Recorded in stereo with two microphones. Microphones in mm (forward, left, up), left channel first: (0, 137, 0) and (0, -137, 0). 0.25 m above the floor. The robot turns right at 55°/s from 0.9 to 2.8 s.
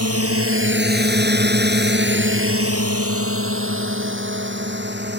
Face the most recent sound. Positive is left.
turn(degrees=-40)  # may be behind; listen again after turning